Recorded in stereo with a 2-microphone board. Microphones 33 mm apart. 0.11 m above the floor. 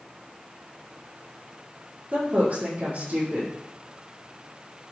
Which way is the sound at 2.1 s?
55° right (ahead or behind).